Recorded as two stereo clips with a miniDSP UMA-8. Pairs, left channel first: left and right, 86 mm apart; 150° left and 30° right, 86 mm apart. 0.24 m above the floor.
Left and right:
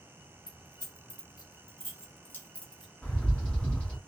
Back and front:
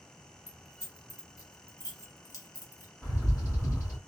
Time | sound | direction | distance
0.5 | keys jangling | 100° left | 1.5 m
3.0 | a bird | 155° left | 1.8 m